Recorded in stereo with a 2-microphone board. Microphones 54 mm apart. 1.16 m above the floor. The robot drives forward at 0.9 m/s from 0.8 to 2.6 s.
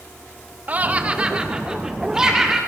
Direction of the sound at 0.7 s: 30° right (ahead or behind).